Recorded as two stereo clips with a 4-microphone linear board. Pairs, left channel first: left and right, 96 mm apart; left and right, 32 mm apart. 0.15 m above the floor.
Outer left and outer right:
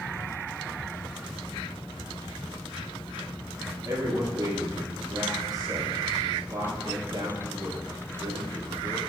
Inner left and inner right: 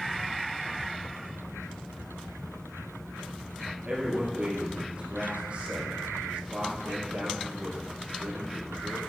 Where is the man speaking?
40° right (ahead or behind), 2.5 m.